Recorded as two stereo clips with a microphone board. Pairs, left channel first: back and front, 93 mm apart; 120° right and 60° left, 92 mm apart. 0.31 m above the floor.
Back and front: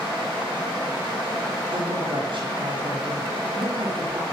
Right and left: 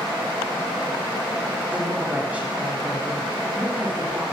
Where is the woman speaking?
15° right, 7.5 m.